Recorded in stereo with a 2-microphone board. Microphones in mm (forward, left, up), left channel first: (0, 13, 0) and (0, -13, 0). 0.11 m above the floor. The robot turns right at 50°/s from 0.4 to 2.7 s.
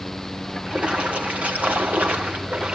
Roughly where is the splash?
Behind right.